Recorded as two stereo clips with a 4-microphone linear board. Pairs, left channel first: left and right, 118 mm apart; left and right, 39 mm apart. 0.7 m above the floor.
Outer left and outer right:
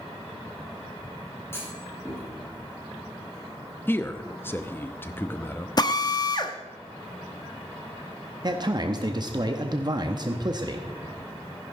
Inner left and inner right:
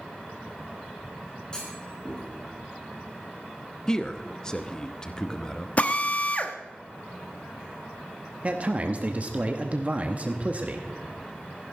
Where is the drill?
40° left (ahead or behind), 0.9 m.